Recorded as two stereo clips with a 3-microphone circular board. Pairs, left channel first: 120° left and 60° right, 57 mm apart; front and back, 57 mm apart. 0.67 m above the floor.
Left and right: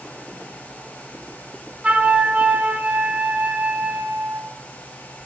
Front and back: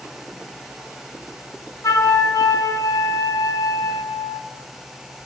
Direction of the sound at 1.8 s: 5° left.